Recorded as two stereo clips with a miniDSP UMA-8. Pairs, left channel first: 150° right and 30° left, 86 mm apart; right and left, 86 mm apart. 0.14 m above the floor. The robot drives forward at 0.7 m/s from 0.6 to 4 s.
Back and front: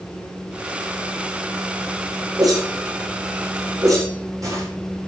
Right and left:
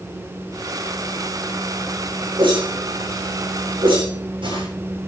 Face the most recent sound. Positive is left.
turn(degrees=80)